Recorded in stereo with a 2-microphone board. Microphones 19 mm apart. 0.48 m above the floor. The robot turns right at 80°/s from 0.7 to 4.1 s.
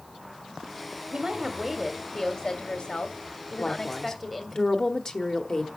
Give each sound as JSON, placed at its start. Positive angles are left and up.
{"t": 1.1, "sound": "a woman speaking", "azimuth_deg": -75, "distance_m": 1.1}
{"t": 3.6, "sound": "a woman speaking", "azimuth_deg": 95, "distance_m": 1.1}